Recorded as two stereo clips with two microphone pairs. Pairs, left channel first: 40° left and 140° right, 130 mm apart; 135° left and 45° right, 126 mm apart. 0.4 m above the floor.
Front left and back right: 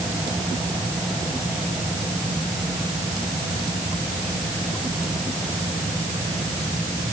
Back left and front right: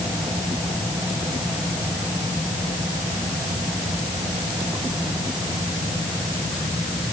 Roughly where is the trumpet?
I don't hear a trumpet.